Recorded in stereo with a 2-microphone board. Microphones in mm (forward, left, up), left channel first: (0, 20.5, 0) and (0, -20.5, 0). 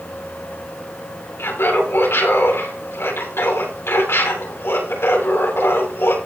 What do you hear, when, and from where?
1.4 s laughter: 80° left, 8 m